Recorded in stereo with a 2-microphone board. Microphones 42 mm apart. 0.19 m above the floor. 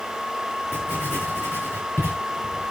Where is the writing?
75° left (ahead or behind), 8 m.